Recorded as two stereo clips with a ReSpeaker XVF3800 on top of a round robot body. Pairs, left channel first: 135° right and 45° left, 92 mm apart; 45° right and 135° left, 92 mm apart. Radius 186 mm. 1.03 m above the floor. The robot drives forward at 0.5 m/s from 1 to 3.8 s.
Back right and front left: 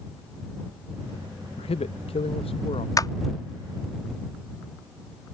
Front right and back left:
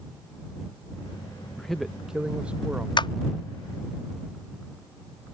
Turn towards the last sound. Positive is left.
turn(degrees=-90)